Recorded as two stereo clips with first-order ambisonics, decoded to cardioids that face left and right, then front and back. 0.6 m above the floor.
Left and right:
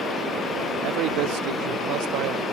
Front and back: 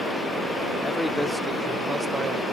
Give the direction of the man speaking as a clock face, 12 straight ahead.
3 o'clock.